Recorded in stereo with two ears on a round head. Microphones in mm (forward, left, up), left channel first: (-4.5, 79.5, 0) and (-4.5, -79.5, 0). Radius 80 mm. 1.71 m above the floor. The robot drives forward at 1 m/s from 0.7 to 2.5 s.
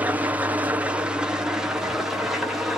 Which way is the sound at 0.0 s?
10° right (ahead or behind).